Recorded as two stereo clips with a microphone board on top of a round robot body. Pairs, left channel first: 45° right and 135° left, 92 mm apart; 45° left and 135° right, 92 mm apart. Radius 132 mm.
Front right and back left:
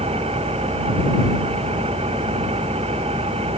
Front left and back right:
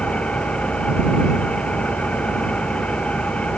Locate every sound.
0.0 s an engine running: 125° left